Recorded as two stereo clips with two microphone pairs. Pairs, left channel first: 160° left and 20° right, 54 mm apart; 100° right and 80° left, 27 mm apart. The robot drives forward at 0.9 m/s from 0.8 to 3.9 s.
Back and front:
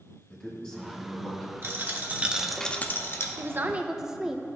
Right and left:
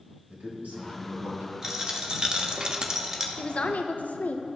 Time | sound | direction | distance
0.3 | a man speaking | 85° left | 2.5 m
1.6 | a dropped coin | 15° left | 1.0 m
3.4 | a woman speaking | 50° right | 0.7 m